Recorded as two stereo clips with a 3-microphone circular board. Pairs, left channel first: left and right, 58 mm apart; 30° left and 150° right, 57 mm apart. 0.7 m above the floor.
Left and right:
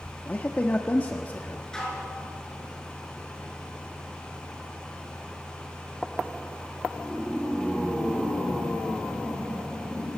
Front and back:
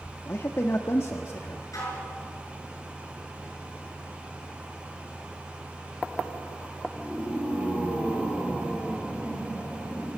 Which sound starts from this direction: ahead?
Dishes clattering, at 1.7 s.